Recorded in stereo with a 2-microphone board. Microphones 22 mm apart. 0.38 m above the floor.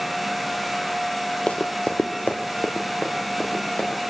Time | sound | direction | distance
1.5 | running footsteps | 65° left (ahead or behind) | 0.7 m